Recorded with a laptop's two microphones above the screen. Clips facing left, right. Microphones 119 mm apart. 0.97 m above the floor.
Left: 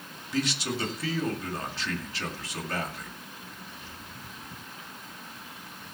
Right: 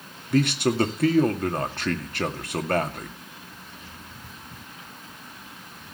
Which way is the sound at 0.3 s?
60° right (ahead or behind).